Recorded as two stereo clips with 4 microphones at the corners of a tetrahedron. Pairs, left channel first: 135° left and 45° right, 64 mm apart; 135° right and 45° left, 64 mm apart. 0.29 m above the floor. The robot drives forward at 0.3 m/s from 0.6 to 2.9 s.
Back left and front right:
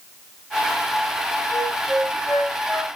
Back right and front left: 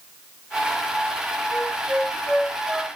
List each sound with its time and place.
1.5 s a flute: 115° left, 1.4 m; by 2.9 s 135° left, 1.5 m